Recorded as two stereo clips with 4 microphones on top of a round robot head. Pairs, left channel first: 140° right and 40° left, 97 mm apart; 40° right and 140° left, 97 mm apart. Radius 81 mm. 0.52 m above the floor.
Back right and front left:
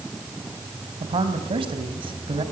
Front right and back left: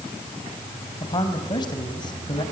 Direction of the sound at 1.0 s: 5° left.